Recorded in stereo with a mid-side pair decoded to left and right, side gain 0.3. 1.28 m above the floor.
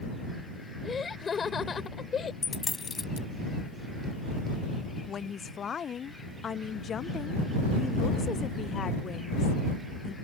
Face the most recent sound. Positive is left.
turn(degrees=65)